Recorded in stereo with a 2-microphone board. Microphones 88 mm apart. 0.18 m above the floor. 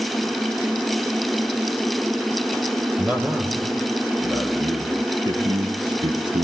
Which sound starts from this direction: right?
A man speaking, at 3.0 s.